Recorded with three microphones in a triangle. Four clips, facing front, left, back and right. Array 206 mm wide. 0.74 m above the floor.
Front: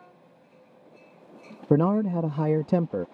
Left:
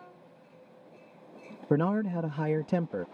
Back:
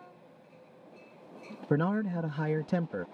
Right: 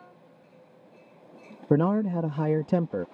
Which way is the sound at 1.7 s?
35° right.